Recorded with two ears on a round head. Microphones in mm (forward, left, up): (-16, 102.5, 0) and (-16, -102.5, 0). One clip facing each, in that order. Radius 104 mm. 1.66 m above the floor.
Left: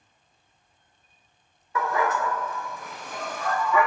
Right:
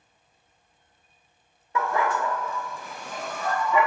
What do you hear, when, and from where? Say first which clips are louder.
1.8 s a dog barking: even; 25° right (ahead or behind), 1.4 m; by 3.9 s 20° right (ahead or behind), 1.2 m